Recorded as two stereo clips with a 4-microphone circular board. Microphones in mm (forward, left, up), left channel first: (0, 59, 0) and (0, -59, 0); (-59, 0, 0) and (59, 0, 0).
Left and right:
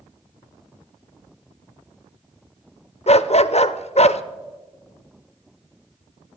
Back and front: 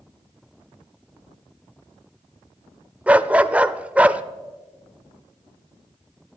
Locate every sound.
3.1 s a dog barking: 80° left, 0.5 m